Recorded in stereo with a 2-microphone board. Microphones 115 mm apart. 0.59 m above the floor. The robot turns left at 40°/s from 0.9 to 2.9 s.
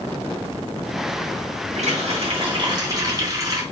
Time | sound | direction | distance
1.8 | a running tap | 105° right | 3 m